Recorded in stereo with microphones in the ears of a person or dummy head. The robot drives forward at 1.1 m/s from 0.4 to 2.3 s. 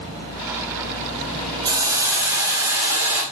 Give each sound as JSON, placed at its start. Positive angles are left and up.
{"t": 1.6, "sound": "a hiss", "side_deg": -25, "distance_m": 1.1}